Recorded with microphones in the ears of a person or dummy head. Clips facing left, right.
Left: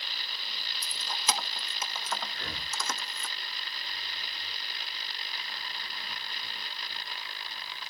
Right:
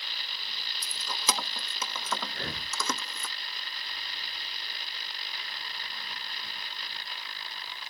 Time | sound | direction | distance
0.8 | keys jangling | 70° right (ahead or behind) | 0.9 m
2.3 | breathing | 40° right (ahead or behind) | 6 m